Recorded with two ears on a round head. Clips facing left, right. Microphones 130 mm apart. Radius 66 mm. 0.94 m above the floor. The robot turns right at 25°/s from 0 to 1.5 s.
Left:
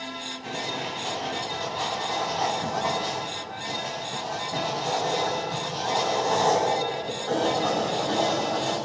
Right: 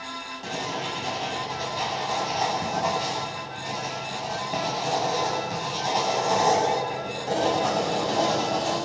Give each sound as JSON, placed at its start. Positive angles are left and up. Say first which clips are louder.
{"t": 0.4, "sound": "writing", "louder": "right 2 dB", "side_deg": -45, "distance_m": 9.0}